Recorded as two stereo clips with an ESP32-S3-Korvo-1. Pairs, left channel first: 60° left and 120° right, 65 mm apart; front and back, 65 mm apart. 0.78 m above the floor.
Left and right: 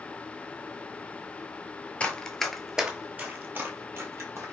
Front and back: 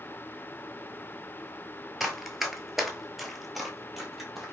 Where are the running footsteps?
95° left, 0.8 m; by 4.5 s 90° right, 1.3 m.